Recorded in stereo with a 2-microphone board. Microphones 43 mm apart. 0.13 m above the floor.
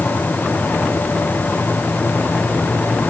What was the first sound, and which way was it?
Only background noise.